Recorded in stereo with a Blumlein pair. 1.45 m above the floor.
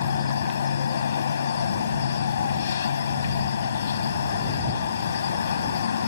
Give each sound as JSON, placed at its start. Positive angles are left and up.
{"t": 0.0, "sound": "an insect", "azimuth_deg": 65}